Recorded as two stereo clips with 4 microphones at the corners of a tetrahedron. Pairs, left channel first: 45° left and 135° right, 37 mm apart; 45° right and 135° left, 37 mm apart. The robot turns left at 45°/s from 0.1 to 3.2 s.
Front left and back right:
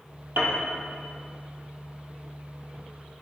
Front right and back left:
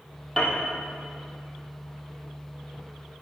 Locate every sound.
0.4 s a piano: 130° right, 2.5 m; by 0.6 s 140° right, 2.5 m